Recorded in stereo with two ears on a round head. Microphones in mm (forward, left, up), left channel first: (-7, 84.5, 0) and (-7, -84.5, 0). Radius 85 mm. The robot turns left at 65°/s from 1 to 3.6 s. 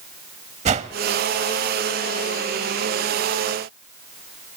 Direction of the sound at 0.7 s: 35° right (ahead or behind).